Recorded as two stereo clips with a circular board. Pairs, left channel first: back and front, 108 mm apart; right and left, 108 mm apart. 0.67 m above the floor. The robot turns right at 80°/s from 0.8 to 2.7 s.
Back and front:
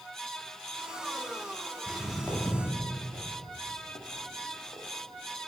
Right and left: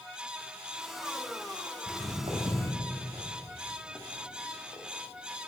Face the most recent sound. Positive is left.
turn(degrees=-100)